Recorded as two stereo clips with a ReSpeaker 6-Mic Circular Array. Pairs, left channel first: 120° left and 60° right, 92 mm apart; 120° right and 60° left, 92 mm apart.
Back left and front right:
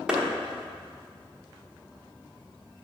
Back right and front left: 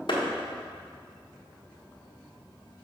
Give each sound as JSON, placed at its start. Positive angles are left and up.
{"t": 0.1, "sound": "a clap", "azimuth_deg": -140, "distance_m": 1.2}